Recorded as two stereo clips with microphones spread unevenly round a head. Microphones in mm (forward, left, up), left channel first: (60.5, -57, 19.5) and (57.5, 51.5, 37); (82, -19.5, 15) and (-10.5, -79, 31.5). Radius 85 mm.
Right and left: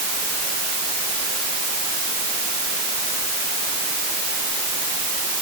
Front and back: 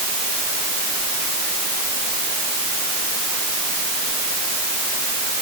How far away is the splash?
No splash in this recording.